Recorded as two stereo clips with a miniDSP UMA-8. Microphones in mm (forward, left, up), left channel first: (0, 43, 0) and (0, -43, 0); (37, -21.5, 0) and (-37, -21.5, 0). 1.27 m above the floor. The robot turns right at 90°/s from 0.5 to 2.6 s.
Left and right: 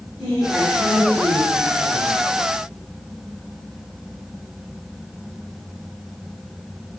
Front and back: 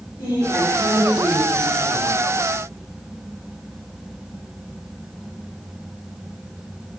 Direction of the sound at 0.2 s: 10° left.